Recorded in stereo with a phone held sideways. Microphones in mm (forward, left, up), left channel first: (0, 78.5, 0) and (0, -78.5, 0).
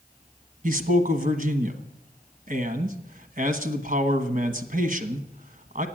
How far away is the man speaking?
About 1.3 m.